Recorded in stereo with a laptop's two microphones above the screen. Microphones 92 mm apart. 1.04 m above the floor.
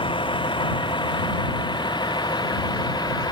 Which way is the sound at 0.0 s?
60° left (ahead or behind).